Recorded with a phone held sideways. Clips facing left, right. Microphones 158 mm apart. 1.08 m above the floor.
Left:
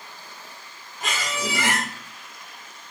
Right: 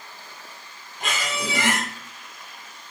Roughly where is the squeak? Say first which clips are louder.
Even; right.